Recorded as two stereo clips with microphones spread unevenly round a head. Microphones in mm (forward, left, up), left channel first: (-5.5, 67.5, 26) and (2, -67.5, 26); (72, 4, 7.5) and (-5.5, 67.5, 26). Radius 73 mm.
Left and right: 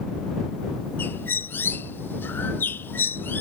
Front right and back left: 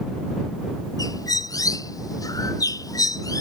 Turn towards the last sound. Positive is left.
turn(degrees=15)